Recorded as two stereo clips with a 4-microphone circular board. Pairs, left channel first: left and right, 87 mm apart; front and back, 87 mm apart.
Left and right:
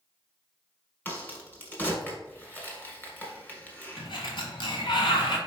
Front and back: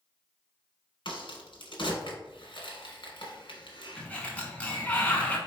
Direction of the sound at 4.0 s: 75° left.